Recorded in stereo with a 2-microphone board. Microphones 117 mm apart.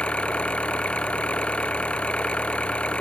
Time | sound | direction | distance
0.0 | an engine running | 10° left (ahead or behind) | ?